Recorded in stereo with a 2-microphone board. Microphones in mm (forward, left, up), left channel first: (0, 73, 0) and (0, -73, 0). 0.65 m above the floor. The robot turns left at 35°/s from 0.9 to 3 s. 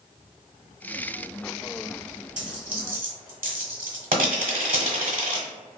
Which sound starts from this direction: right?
A dropped coin, at 2.4 s.